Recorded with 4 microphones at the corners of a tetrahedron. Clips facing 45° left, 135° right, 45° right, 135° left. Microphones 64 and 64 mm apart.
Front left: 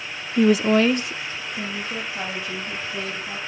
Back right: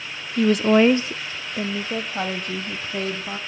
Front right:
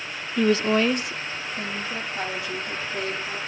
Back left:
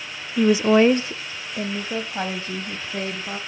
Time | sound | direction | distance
0.4 | a woman speaking | 45° left | 0.7 m